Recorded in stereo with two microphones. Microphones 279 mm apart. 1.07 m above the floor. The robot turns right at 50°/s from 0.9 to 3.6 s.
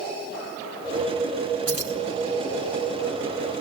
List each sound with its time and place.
1.7 s keys jangling: 55° left (ahead or behind), 3.5 m; by 1.9 s 70° left (ahead or behind), 3.5 m